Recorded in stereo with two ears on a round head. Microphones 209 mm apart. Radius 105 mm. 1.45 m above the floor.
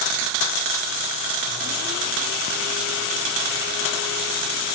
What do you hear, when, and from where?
Only background noise.